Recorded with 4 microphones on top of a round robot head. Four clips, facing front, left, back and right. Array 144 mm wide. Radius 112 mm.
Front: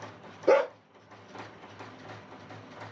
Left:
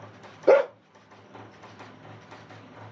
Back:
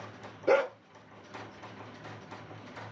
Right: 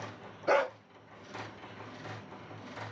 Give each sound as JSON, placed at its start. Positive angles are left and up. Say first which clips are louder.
{"t": 0.5, "sound": "a dog barking", "louder": "left 9 dB, front 3 dB", "azimuth_deg": 80, "distance_m": 0.8}